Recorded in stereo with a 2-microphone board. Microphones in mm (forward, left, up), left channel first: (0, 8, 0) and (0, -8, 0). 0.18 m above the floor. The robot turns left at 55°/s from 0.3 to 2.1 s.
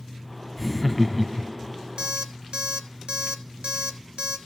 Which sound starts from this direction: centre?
Laughter, at 0.6 s.